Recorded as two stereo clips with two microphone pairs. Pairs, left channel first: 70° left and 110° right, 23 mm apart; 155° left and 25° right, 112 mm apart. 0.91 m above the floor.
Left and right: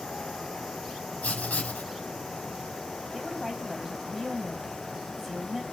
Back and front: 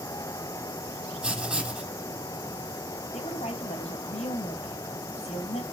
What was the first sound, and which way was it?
Writing, 55° left.